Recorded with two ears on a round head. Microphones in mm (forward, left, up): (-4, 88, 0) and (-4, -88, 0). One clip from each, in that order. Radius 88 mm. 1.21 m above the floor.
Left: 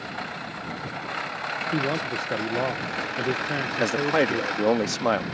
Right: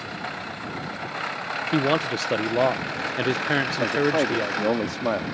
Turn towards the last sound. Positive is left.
turn(degrees=60)  # may be behind; listen again after turning